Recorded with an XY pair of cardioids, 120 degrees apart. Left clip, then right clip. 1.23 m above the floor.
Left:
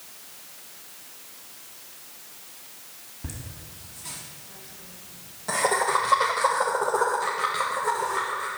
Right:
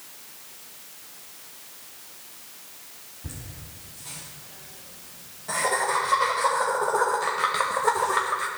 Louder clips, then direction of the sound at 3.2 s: Left 2 dB; 55° left.